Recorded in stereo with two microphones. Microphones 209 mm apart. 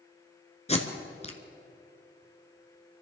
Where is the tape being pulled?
30° left (ahead or behind), 1.5 m.